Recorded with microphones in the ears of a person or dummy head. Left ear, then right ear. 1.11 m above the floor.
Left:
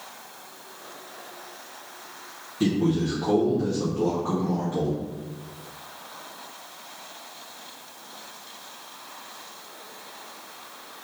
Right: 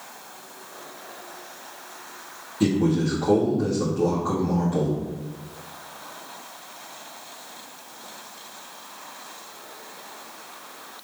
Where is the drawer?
I don't hear a drawer.